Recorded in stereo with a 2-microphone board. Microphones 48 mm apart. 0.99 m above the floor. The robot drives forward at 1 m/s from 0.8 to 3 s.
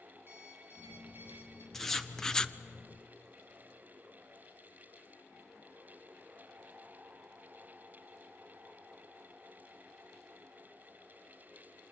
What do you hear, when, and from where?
0.3 s an alarm clock: 50° right (ahead or behind), 7.5 m; by 1.6 s 55° right (ahead or behind), 7 m
1.7 s writing: 5° left (ahead or behind), 1.3 m; by 2.5 s 15° left (ahead or behind), 0.5 m